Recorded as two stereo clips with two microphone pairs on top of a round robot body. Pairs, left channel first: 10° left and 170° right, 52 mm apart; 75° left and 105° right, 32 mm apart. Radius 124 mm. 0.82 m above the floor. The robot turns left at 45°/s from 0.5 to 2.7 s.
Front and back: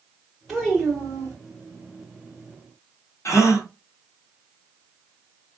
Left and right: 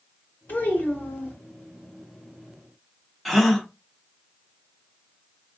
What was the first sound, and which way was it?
A child speaking, 100° left.